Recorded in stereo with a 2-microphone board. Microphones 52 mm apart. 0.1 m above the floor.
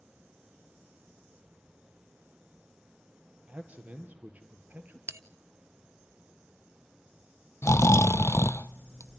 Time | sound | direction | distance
3.5 | a man speaking | 20° right (ahead or behind) | 3 m
5.1 | a bell | 55° right (ahead or behind) | 0.6 m
7.6 | snoring | 65° left (ahead or behind) | 0.6 m